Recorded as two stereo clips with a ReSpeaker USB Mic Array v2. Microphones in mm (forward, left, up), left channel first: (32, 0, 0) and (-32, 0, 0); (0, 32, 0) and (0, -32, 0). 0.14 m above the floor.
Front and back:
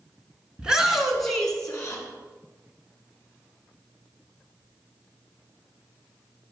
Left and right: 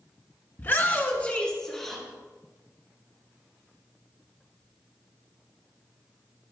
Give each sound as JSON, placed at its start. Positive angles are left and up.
{"t": 0.6, "sound": "a shout", "azimuth_deg": 110, "distance_m": 1.4}